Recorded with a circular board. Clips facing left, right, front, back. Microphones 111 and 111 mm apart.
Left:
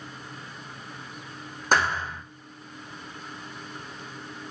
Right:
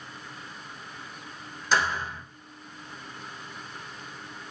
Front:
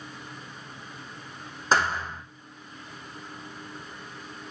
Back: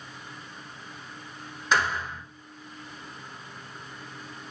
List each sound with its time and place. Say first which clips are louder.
1.7 s a thud: left 2 dB, front 2 dB; 50° left, 5 m